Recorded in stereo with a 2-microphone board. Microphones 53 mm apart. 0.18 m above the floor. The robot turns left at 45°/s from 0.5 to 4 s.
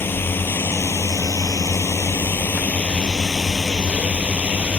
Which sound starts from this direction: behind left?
A drone, at 0.0 s.